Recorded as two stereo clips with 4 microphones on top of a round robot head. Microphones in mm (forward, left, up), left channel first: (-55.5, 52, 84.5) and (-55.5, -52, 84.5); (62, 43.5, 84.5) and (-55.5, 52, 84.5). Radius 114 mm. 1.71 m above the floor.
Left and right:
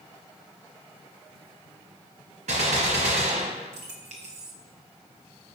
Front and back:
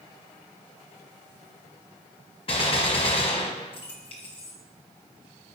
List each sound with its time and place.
2.5 s a gunshot: 60° right, 0.8 m